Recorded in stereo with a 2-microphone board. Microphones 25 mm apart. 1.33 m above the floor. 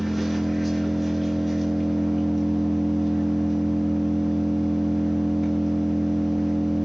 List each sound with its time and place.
0.0 s an engine running: centre (ahead or behind), 9.5 m